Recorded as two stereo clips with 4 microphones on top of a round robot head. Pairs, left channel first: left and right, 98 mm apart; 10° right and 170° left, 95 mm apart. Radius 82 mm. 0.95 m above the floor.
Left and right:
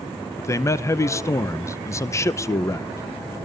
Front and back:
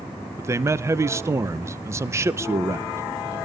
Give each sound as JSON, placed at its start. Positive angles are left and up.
{"t": 0.4, "sound": "a man speaking", "azimuth_deg": 130, "distance_m": 0.6}